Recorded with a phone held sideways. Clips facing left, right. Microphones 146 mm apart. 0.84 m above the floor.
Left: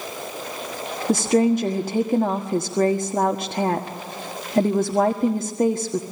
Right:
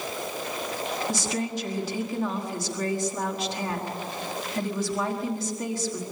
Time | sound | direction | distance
1.1 | a woman speaking | 55° left (ahead or behind) | 1.4 m